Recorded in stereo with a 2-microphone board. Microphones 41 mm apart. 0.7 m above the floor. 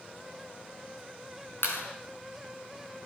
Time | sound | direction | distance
1.6 | a clap | 75° left (ahead or behind) | 6.5 m